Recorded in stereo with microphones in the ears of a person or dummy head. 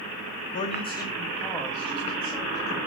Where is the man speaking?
50° left (ahead or behind), 0.9 m; by 2.8 s 10° right (ahead or behind), 2.5 m.